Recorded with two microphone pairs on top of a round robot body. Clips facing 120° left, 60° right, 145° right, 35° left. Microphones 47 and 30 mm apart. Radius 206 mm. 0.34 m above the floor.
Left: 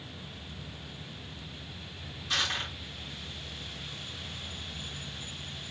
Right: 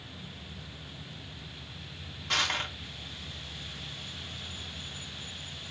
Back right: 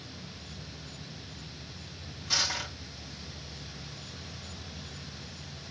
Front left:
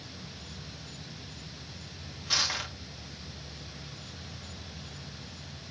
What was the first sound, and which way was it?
Crushing, 30° right.